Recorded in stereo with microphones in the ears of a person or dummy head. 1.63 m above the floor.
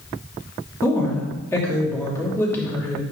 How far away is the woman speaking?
About 3 m.